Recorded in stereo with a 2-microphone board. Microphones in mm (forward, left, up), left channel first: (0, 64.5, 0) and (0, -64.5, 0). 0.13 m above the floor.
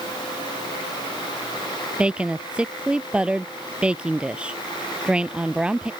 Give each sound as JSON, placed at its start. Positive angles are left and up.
{"t": 2.0, "sound": "a woman speaking", "side_deg": -10}